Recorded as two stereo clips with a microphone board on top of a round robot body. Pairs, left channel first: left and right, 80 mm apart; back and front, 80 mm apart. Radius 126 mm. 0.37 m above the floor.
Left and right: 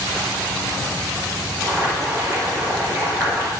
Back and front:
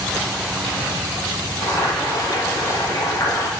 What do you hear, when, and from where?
1.6 s boiling: 145° right, 4.5 m